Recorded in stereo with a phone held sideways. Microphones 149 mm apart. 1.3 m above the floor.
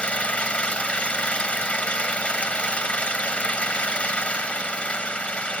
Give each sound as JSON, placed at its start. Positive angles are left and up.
{"t": 0.0, "sound": "an engine running", "side_deg": 10}